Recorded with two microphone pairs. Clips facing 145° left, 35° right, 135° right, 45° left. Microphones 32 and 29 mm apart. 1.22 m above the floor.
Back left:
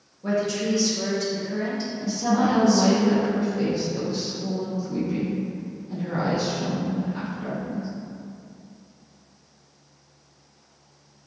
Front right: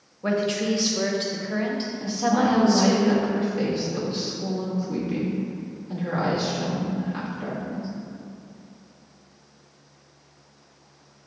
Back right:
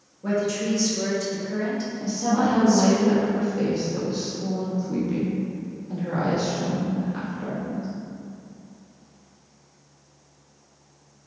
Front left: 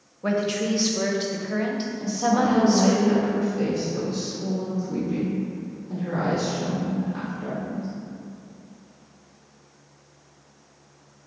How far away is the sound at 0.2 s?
About 0.7 m.